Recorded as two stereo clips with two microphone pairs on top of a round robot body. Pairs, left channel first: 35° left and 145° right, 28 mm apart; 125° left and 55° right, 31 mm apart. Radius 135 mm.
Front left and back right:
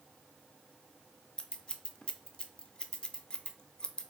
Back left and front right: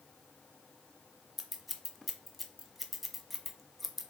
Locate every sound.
1.4 s scissors: 35° left, 0.8 m